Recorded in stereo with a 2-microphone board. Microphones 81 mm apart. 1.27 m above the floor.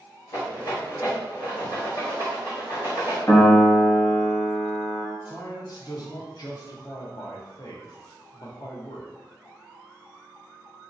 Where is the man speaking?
55° left (ahead or behind), 0.7 m.